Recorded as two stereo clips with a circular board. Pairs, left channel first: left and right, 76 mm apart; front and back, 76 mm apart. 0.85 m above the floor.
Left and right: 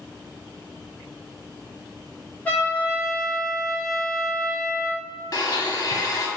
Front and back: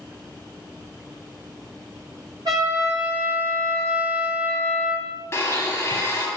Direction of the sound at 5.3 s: 55° left.